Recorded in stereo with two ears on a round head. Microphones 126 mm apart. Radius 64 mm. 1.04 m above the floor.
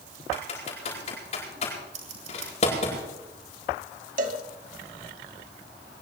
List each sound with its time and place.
0.3 s typing on a keyboard: 45° left (ahead or behind), 8 m
1.9 s scissors: 55° right (ahead or behind), 6.5 m
4.2 s a cowbell: 60° right (ahead or behind), 2.5 m